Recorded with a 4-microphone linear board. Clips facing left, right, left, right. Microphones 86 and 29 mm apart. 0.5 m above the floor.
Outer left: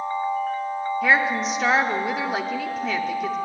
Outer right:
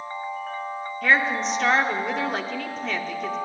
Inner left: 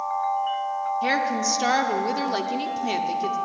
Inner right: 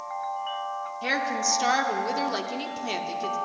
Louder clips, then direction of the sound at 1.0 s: Even, inner left 1 dB; 5° left (ahead or behind).